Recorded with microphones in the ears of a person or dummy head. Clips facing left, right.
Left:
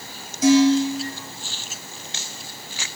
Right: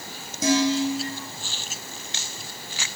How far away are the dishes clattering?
About 5.5 m.